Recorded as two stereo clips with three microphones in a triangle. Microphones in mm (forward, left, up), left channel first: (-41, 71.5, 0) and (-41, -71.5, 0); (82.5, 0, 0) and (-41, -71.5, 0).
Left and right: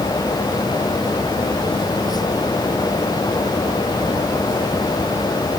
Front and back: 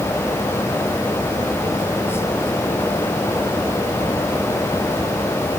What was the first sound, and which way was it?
Only background noise.